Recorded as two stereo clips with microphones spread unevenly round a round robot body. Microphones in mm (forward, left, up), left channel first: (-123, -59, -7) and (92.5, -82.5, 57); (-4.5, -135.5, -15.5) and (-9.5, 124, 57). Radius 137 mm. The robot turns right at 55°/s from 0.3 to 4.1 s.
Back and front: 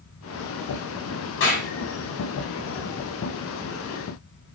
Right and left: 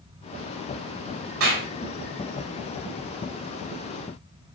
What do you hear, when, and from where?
1.4 s a clap: 130° left, 6 m; by 1.7 s 145° left, 6 m